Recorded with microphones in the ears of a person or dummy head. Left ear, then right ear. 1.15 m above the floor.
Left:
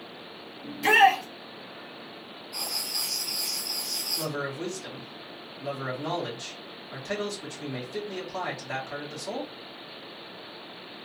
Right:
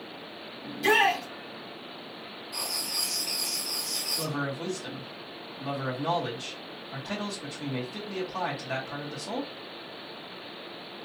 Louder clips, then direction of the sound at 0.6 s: Left 4 dB; 15° left (ahead or behind).